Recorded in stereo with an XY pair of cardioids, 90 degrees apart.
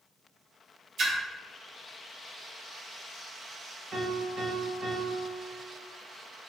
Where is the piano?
55° right, 1.3 m.